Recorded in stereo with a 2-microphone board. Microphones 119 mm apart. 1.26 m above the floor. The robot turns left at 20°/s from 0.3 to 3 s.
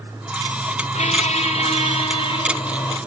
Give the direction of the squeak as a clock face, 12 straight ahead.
9 o'clock.